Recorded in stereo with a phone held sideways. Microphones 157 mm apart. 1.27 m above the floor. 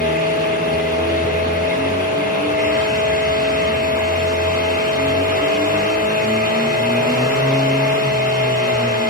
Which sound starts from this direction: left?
A fan, at 0.0 s.